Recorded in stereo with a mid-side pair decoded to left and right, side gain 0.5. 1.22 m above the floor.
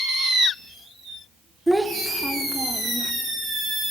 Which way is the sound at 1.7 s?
5° right.